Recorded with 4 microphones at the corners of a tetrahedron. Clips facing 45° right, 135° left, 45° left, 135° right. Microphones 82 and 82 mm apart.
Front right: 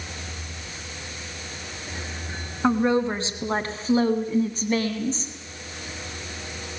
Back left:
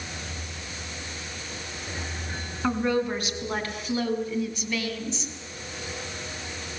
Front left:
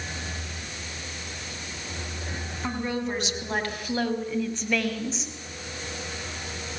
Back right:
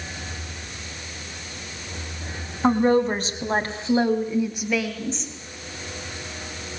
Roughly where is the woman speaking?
Right.